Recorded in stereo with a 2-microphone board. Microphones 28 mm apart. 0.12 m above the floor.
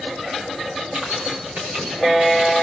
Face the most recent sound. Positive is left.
turn(degrees=-80)